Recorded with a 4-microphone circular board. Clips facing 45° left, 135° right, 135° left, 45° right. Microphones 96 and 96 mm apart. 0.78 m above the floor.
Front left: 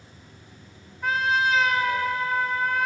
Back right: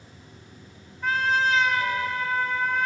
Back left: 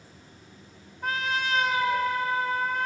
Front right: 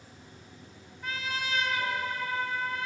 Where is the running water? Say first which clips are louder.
Back right 1 dB, even; 70° right, 5.5 m.